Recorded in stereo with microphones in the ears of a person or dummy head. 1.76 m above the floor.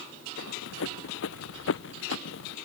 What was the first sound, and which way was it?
Running footsteps, 70° left (ahead or behind).